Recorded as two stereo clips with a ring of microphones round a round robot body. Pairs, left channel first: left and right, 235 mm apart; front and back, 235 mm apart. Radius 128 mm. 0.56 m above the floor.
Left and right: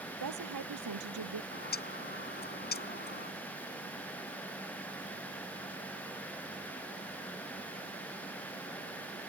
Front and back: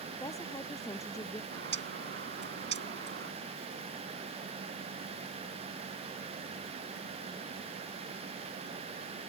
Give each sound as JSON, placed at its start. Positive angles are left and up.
{"t": 0.2, "sound": "a woman speaking", "azimuth_deg": -80}
{"t": 1.5, "sound": "a bird", "azimuth_deg": 140}